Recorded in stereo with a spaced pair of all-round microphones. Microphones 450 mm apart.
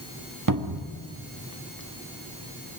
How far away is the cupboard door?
About 1.5 m.